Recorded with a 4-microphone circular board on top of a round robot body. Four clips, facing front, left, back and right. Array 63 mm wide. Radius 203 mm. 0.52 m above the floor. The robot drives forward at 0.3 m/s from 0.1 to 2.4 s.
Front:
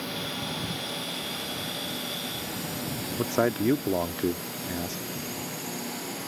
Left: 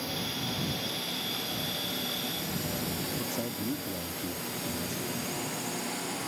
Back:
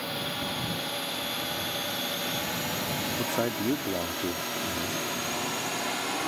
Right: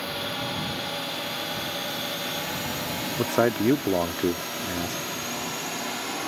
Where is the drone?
100° right; by 6.3 s 150° right.